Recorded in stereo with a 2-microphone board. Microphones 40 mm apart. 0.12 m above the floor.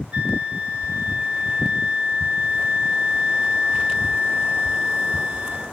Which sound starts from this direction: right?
A flute, at 0.1 s.